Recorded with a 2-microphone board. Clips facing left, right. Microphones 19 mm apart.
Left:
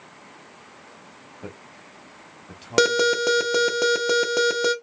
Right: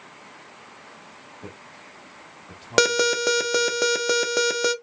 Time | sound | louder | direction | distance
1.4 | a man speaking | left 3 dB | 25° left (ahead or behind) | 0.9 m
2.8 | an alarm | left 1 dB | 25° right (ahead or behind) | 0.5 m